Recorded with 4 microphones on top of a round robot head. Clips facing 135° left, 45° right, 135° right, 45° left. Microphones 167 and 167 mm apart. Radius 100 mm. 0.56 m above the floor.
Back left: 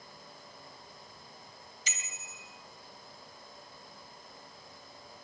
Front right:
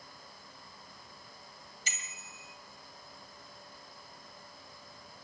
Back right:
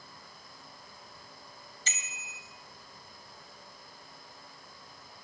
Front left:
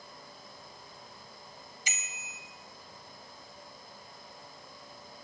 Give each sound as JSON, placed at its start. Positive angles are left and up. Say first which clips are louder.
{"t": 1.9, "sound": "a bicycle bell", "louder": "even, even", "azimuth_deg": 125, "distance_m": 2.5}